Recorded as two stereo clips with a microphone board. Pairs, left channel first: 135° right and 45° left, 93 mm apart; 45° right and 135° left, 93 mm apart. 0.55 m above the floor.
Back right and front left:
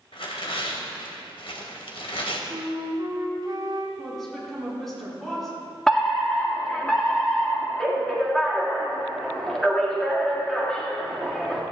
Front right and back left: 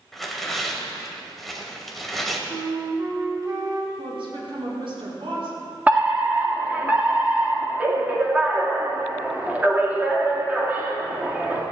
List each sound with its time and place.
0.1 s tearing paper: 135° right, 1.8 m
2.5 s a flute: 90° left, 2 m
4.0 s a woman speaking: 140° left, 5 m
5.9 s a fire alarm: 155° left, 1.6 m